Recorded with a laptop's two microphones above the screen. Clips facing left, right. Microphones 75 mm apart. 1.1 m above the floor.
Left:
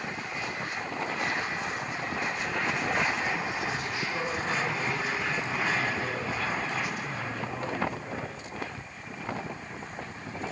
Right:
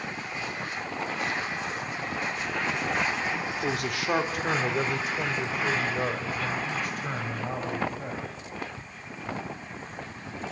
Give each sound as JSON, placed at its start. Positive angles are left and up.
{"t": 3.6, "sound": "a man speaking", "side_deg": -75, "distance_m": 3.0}